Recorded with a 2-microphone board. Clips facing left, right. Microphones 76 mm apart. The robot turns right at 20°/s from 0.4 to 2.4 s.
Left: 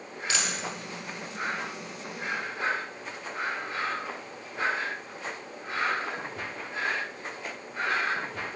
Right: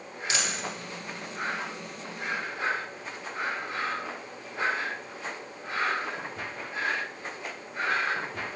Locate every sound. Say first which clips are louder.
0.3 s a dropped coin: even; 25° right (ahead or behind), 1.7 m